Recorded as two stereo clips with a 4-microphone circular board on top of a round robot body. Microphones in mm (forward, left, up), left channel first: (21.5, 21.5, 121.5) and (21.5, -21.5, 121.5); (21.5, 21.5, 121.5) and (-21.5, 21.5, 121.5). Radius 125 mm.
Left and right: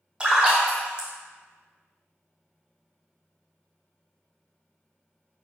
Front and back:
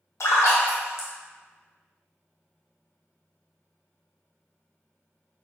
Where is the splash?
25° right, 0.7 m.